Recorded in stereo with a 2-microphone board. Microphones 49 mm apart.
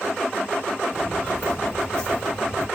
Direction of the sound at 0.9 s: 70° right (ahead or behind).